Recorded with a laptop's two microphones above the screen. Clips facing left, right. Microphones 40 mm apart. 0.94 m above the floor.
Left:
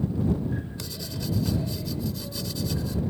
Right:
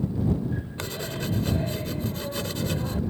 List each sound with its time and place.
0.8 s writing: 40° right (ahead or behind)